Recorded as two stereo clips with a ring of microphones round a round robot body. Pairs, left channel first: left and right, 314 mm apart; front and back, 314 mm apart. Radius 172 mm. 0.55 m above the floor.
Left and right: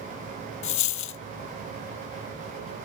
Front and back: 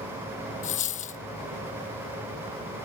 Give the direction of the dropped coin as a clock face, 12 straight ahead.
10 o'clock.